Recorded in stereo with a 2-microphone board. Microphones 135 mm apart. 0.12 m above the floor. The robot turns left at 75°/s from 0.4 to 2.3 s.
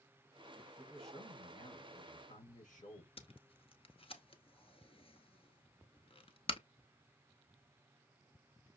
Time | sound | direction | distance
0.8 | a man speaking | 165° right | 4 m
3.2 | tape being pulled | 45° left (ahead or behind) | 0.8 m